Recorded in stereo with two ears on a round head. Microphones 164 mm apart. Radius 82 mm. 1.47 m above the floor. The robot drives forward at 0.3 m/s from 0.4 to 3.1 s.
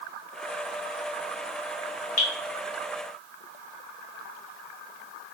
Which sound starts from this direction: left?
Dripping, at 2.2 s.